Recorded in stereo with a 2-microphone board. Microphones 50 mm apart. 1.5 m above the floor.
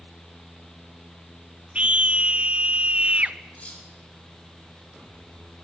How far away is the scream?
About 1.1 m.